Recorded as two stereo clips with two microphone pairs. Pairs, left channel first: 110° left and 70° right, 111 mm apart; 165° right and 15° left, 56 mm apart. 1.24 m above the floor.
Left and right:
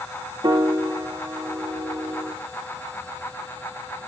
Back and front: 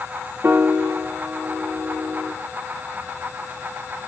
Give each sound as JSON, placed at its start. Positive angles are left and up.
{"t": 0.4, "sound": "a piano", "azimuth_deg": -30, "distance_m": 0.8}